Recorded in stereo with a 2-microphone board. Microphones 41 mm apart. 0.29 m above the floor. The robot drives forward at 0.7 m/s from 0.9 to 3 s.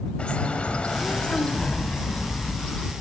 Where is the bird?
30° left (ahead or behind), 1.0 m; by 2.9 s 15° left (ahead or behind), 2 m.